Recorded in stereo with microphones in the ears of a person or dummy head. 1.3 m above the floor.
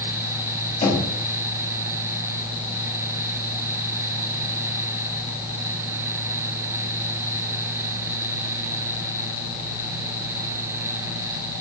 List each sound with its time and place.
0.8 s knocking: 40° left (ahead or behind), 2.5 m